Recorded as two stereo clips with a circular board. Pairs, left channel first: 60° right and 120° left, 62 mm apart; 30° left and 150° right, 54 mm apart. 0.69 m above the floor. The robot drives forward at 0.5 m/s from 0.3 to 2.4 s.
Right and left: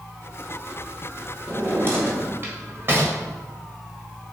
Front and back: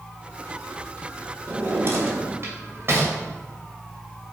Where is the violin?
I don't hear a violin.